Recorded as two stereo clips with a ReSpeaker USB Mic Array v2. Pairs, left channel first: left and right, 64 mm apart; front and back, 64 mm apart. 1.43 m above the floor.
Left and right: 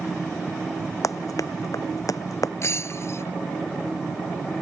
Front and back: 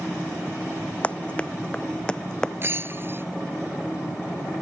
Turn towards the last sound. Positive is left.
turn(degrees=130)